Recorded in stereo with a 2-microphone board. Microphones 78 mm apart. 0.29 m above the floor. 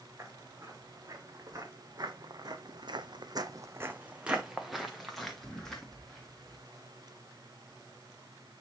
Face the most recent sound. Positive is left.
turn(degrees=10)  # may be behind; listen again after turning